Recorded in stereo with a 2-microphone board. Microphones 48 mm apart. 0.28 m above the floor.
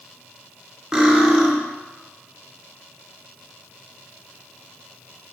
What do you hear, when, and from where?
0.9 s cutlery clinking: 10° right (ahead or behind), 0.8 m